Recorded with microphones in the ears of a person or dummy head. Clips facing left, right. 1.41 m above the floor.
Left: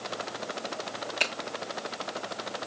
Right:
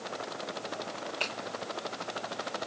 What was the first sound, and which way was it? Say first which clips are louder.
A finger snap: left 5 dB; 30° left (ahead or behind).